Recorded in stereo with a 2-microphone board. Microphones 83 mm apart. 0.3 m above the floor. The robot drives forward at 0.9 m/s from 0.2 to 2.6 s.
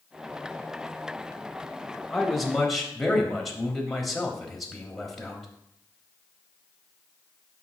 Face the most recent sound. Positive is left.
turn(degrees=0)  # may be behind; listen again after turning